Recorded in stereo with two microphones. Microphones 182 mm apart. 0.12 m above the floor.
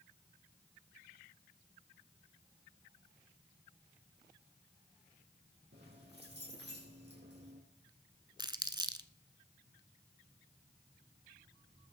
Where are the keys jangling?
70° right (ahead or behind), 4 m; by 7.6 s 75° right (ahead or behind), 5 m.